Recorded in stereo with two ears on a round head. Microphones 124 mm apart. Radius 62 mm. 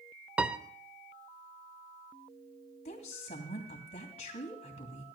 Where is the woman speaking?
50° left (ahead or behind), 2.5 m.